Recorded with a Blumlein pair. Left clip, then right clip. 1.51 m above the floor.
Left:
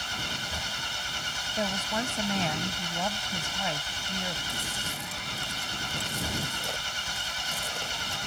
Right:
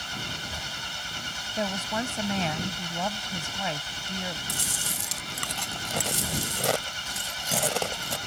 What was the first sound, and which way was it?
An engine running, 10° left.